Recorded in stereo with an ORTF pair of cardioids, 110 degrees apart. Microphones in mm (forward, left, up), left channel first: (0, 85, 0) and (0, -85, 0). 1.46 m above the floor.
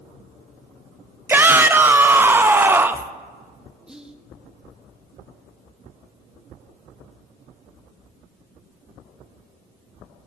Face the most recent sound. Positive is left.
turn(degrees=-5)